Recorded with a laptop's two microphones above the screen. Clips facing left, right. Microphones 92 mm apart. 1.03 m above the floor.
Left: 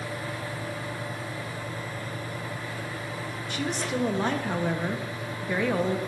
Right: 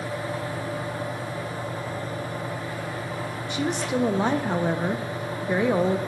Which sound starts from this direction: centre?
A woman speaking, at 3.5 s.